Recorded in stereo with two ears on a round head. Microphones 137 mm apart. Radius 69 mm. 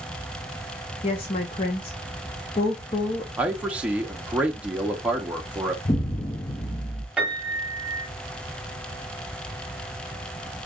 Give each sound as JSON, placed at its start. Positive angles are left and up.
{"t": 1.0, "sound": "a woman speaking", "side_deg": 35, "distance_m": 0.8}
{"t": 3.4, "sound": "a man speaking", "side_deg": -10, "distance_m": 0.9}
{"t": 5.8, "sound": "an explosion", "side_deg": 25, "distance_m": 0.6}
{"t": 7.2, "sound": "a piano", "side_deg": -5, "distance_m": 1.4}